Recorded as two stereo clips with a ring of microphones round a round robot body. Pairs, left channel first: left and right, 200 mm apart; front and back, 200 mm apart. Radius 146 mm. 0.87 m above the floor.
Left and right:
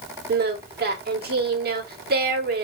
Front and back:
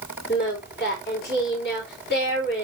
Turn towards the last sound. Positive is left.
turn(degrees=-55)